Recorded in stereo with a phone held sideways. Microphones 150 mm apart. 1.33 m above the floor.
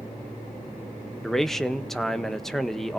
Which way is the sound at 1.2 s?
Centre (ahead or behind).